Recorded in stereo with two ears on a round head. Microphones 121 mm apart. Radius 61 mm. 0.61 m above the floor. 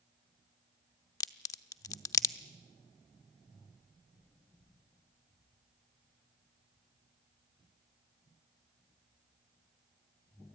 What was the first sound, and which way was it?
A crack, 25° left (ahead or behind).